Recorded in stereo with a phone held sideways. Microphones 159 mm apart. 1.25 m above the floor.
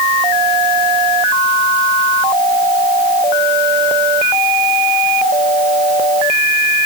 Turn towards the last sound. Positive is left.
No sound to turn to.